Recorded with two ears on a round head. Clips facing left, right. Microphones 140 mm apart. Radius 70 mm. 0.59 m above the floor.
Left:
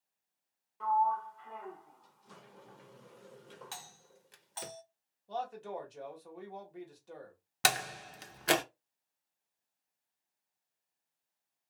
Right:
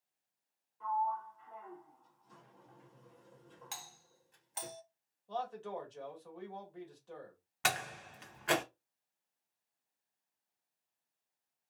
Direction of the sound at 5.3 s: 15° left (ahead or behind).